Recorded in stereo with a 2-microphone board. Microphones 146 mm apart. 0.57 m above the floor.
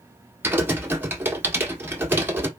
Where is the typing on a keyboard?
15° right (ahead or behind), 1.2 m.